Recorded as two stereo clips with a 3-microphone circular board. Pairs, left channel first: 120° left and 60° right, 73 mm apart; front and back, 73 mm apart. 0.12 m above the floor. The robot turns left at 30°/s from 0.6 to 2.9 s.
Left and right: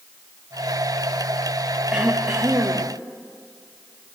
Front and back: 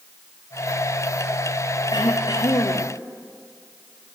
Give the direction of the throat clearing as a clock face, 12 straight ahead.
11 o'clock.